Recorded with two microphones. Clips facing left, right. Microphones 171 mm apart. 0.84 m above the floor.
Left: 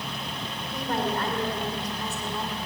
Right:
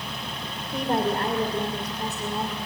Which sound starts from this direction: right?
A woman speaking, at 0.7 s.